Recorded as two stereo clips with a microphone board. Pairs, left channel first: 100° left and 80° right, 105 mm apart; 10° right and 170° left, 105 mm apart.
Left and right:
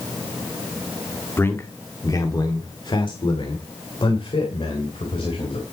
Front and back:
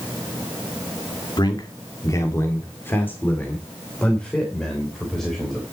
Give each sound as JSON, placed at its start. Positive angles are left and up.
{"t": 1.4, "sound": "a man speaking", "azimuth_deg": 30, "distance_m": 1.5}